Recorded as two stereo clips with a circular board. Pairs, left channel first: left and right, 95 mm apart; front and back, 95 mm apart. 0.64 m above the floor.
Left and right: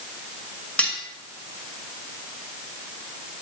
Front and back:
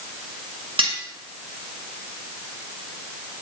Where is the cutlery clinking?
165° left, 1.9 m.